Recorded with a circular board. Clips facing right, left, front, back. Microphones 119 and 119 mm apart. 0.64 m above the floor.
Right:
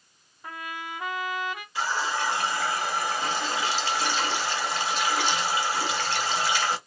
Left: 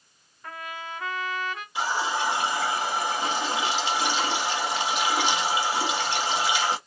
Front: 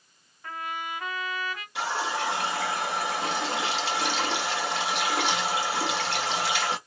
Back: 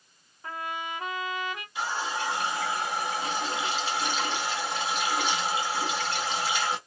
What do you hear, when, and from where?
0.4 s a trumpet: 145° right, 1.2 m
1.8 s a running tap: 20° left, 1.2 m